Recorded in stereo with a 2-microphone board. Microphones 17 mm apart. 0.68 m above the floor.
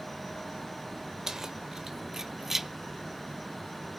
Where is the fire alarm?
No fire alarm in this recording.